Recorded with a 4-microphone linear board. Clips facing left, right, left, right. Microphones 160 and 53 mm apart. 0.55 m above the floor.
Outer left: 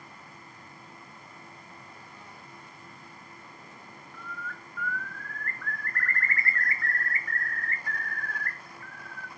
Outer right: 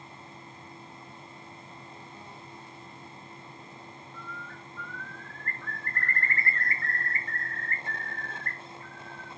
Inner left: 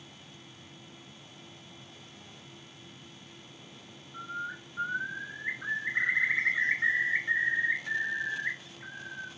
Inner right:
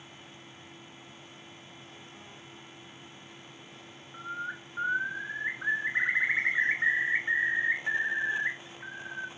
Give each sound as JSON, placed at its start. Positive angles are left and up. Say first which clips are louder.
{"t": 4.1, "sound": "a bird", "louder": "outer left 3 dB, inner right 1 dB", "side_deg": -30, "distance_m": 0.8}